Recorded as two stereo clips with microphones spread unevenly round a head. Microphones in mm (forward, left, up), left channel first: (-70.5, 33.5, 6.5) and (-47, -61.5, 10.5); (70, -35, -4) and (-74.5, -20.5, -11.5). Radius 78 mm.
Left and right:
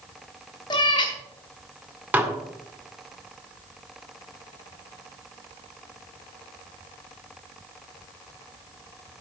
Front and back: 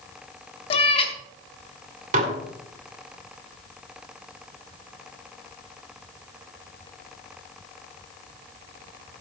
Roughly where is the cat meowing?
Ahead left.